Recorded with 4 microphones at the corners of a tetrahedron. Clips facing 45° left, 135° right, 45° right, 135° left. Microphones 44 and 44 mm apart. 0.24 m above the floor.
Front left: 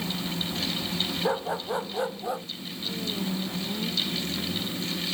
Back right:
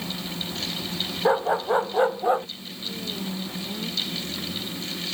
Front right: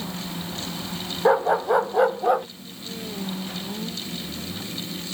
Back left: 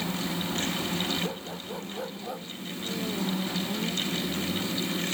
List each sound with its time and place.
1.2 s a dog barking: 70° right; by 2.5 s 80° right